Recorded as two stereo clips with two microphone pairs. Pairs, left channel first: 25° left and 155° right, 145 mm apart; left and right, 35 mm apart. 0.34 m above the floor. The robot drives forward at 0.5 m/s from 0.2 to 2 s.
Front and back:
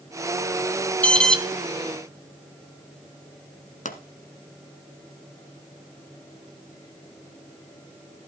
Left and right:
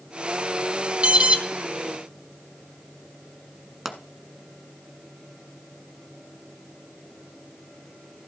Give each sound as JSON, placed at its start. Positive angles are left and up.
{"t": 1.0, "sound": "an alarm", "azimuth_deg": -50, "distance_m": 1.3}
{"t": 3.9, "sound": "a pop", "azimuth_deg": -5, "distance_m": 1.2}